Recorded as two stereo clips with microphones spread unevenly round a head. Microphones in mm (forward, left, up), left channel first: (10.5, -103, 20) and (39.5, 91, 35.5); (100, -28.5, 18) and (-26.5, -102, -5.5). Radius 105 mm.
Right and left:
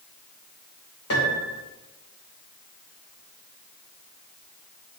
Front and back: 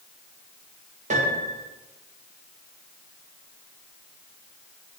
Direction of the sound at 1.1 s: 110° right.